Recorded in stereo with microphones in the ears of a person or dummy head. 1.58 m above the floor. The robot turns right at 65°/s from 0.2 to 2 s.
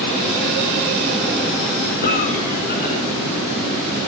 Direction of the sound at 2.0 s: 45° left (ahead or behind).